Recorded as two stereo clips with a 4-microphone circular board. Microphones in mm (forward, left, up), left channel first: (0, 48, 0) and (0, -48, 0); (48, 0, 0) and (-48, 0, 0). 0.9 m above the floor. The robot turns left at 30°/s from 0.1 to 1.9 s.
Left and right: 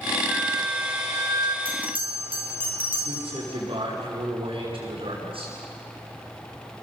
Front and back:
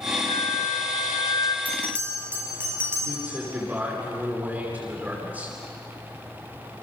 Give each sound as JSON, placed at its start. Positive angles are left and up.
{"t": 0.3, "sound": "a flute", "azimuth_deg": -5, "distance_m": 1.9}
{"t": 1.6, "sound": "a bell", "azimuth_deg": -105, "distance_m": 5.5}
{"t": 3.0, "sound": "a man speaking", "azimuth_deg": -105, "distance_m": 9.0}